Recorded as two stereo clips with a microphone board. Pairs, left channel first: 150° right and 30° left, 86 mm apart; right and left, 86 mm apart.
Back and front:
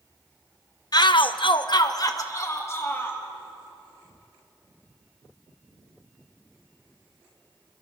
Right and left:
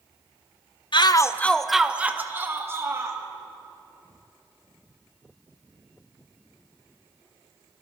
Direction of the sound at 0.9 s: 110° right.